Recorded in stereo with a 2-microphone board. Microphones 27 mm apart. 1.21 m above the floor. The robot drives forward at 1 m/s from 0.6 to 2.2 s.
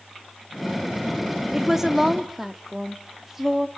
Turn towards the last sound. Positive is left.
turn(degrees=-15)  # may be behind; listen again after turning